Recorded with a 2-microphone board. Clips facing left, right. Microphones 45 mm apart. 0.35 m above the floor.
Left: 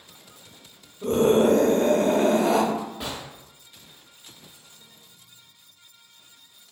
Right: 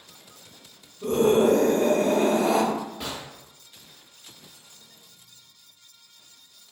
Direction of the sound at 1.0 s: 55° left (ahead or behind).